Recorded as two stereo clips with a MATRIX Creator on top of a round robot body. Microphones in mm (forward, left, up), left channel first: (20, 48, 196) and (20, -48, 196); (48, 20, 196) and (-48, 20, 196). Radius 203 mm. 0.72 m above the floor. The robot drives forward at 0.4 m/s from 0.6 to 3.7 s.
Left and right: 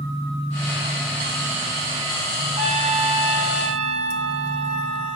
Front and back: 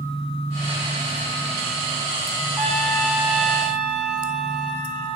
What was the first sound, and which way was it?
A trumpet, 90° right.